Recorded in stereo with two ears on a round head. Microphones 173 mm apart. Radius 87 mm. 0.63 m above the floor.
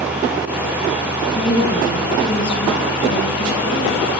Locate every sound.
1.4 s a woman speaking: 25° left (ahead or behind), 8 m